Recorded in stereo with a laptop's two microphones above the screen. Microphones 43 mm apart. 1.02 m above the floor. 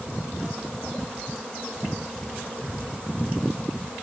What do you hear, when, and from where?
Only background noise.